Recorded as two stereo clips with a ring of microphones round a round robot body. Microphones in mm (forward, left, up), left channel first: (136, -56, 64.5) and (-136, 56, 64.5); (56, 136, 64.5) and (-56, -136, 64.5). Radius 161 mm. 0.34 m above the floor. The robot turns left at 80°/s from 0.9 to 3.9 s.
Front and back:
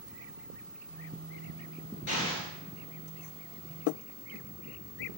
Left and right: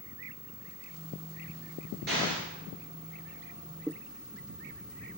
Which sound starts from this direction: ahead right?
An explosion, at 2.1 s.